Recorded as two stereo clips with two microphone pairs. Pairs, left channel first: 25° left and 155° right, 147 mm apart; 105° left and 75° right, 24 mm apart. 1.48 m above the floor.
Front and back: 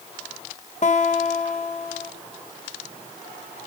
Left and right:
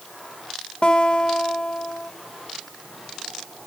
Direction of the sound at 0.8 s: 55° left.